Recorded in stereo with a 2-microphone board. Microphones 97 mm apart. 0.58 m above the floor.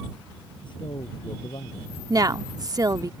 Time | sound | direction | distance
0.6 | a man speaking | 55° left (ahead or behind) | ?
2.1 | a woman speaking | 40° right (ahead or behind) | ?